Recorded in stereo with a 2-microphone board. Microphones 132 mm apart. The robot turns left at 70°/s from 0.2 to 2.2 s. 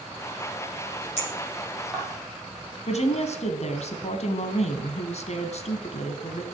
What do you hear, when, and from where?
1.2 s a clink: 55° left (ahead or behind), 7 m; by 2.0 s 10° right (ahead or behind), 7 m
2.9 s a woman speaking: 55° left (ahead or behind), 2.0 m